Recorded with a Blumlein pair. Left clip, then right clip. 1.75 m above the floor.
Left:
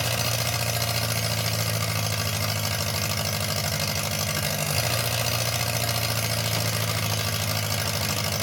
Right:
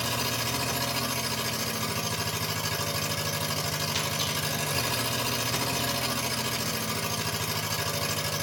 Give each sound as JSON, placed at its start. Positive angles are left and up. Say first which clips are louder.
{"t": 0.0, "sound": "an engine running", "louder": "left 3 dB", "azimuth_deg": 20, "distance_m": 1.0}